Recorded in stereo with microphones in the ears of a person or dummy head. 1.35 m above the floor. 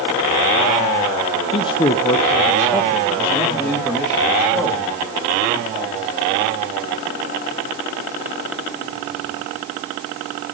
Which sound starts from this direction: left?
A man speaking, at 1.5 s.